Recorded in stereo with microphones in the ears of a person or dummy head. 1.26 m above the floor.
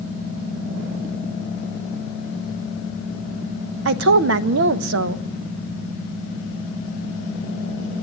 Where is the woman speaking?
70° right (ahead or behind), 0.8 m.